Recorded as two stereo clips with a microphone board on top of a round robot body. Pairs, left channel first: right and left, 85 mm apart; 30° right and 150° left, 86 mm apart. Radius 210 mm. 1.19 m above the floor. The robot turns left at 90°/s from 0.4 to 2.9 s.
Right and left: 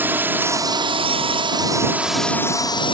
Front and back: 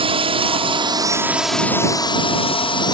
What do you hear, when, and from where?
0.0 s a drone: 160° left; by 3.0 s 65° right